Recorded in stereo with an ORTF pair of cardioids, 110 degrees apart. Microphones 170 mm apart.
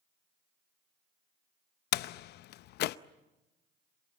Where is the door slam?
70° left, 0.7 m.